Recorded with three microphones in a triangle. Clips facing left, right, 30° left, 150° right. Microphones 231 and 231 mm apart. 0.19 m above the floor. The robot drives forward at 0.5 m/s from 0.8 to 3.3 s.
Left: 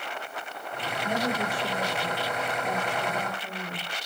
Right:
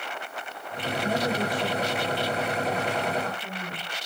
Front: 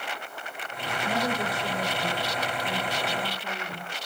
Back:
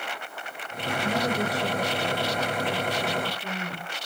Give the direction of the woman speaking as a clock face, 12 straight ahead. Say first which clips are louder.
Right 2 dB, back 2 dB; 5 o'clock.